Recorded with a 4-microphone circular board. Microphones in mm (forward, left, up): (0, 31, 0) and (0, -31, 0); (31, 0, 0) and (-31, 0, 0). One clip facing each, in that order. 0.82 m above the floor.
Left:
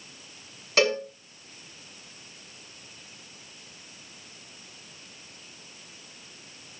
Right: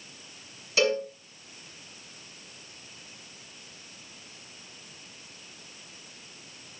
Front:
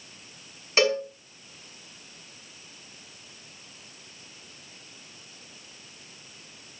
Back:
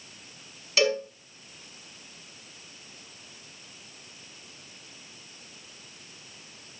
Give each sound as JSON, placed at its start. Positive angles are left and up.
{"t": 0.8, "sound": "a cowbell", "azimuth_deg": 60, "distance_m": 4.5}